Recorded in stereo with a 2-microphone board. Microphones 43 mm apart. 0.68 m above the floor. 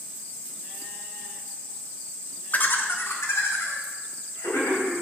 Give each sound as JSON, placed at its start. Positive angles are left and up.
{"t": 2.5, "sound": "laughter", "side_deg": 40, "distance_m": 0.9}